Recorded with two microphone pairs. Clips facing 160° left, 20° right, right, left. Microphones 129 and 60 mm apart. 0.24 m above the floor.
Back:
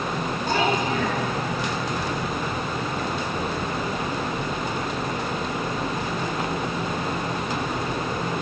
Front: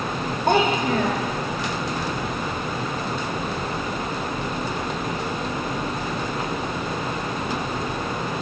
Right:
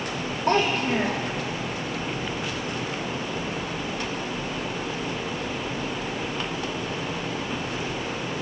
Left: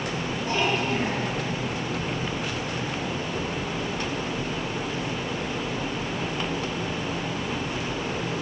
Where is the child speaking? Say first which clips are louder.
Front 4 dB, right 4 dB; 50° right, 7 m.